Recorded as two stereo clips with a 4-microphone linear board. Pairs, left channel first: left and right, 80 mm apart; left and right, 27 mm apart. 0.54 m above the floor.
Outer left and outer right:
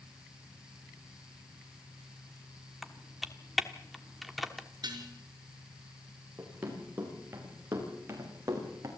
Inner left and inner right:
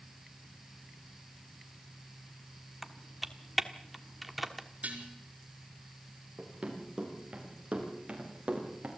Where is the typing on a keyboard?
Centre (ahead or behind), 1.3 m.